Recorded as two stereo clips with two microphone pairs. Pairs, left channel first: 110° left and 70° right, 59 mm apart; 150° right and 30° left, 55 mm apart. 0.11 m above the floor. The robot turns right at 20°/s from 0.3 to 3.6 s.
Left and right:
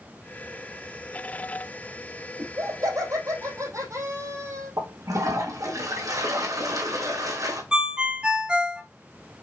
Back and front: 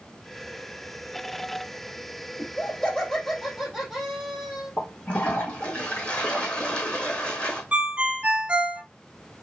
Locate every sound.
2.4 s laughter: 80° right, 2.5 m; by 4.7 s 55° right, 2.5 m
4.8 s a toilet flushing: 75° right, 2.5 m
7.7 s a ringtone: 10° right, 0.8 m